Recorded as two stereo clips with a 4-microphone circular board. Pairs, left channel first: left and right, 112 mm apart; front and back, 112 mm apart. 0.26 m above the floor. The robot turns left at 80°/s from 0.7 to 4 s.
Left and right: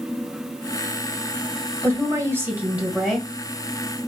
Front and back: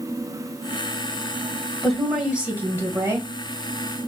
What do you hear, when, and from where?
1.8 s a woman speaking: 75° right, 1.5 m; by 3.3 s 170° left, 1.5 m